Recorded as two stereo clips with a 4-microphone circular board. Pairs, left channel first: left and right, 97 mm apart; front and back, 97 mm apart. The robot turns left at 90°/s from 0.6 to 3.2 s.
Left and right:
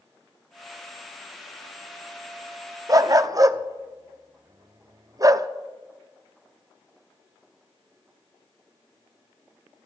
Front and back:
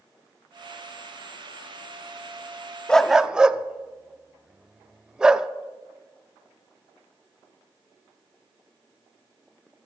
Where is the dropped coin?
I don't hear a dropped coin.